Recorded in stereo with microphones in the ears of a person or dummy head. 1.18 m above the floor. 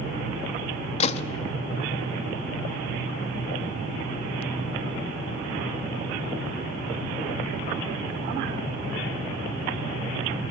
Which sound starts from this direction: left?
A gunshot, at 1.0 s.